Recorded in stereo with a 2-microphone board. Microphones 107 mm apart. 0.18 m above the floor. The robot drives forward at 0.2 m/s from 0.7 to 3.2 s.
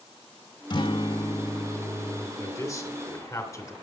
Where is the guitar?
45° left (ahead or behind), 0.7 m.